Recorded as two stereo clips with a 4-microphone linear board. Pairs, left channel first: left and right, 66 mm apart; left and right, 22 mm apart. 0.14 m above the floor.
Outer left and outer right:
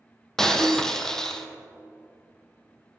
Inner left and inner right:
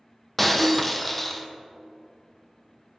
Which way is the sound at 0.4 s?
5° left (ahead or behind).